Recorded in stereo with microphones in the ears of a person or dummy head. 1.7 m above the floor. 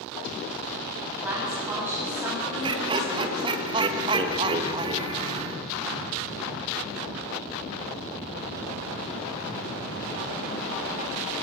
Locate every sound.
1.2 s a woman speaking: 10° right (ahead or behind), 9 m; by 3.5 s 20° right (ahead or behind), 8.5 m
2.6 s laughter: 25° right (ahead or behind), 1.7 m